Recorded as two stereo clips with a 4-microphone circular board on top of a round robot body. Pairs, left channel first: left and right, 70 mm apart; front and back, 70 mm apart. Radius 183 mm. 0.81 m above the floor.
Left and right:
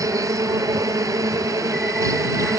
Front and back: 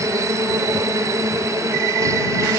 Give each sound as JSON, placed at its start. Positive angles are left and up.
{"t": 0.0, "sound": "an insect", "azimuth_deg": -130}